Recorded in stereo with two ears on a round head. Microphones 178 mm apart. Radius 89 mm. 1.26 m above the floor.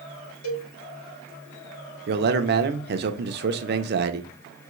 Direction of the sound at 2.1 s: 55° right (ahead or behind).